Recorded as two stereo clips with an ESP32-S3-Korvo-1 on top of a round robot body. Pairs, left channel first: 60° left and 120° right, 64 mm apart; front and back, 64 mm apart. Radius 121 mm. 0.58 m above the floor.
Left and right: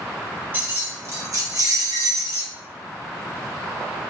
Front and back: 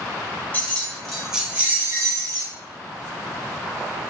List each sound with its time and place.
0.5 s keys jangling: 60° right, 1.1 m; by 2.5 s 155° right, 1.1 m